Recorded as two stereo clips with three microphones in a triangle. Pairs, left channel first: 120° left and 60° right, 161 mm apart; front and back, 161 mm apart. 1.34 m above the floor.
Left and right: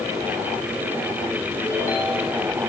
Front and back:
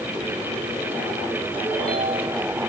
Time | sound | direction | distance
1.6 | a ringtone | 170° right | 7.5 m